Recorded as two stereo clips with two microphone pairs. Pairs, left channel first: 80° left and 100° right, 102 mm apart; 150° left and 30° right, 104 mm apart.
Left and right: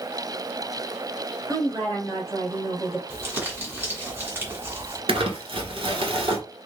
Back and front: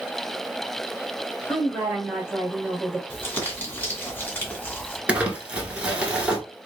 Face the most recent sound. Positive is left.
turn(degrees=-110)